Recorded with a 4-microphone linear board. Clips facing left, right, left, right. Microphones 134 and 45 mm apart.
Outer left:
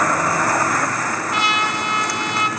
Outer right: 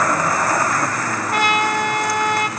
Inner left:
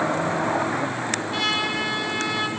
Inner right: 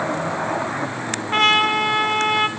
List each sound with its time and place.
1.3 s a trumpet: 50° right (ahead or behind), 2 m